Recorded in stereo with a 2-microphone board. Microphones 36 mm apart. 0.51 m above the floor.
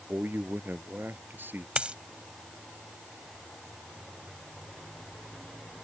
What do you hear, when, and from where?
0.1 s a man speaking: 70° right (ahead or behind)
1.8 s a dropped coin: 35° right (ahead or behind)